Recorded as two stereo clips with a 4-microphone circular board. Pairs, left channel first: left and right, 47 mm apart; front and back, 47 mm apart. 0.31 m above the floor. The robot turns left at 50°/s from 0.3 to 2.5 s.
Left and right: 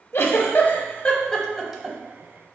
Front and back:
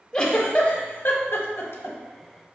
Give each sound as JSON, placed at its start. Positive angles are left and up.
{"t": 0.1, "sound": "a giggle", "azimuth_deg": 70, "distance_m": 0.6}